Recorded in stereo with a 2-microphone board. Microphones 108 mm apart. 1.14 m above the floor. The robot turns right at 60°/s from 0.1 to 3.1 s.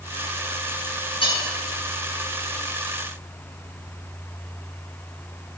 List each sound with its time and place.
1.2 s cutlery clinking: 55° left (ahead or behind), 5 m; by 1.4 s 45° left (ahead or behind), 5 m